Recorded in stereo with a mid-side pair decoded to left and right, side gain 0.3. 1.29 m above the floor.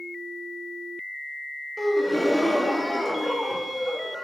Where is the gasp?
Straight ahead, 2 m.